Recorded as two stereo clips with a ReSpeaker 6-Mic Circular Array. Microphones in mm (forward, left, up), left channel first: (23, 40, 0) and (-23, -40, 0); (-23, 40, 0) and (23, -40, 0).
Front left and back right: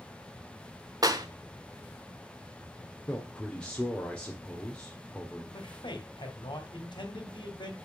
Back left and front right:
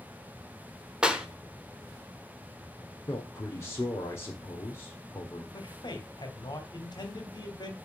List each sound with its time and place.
1.0 s a clap: 135° right, 1.1 m
3.1 s a man speaking: 130° left, 1.4 m
5.5 s a man speaking: 85° left, 2 m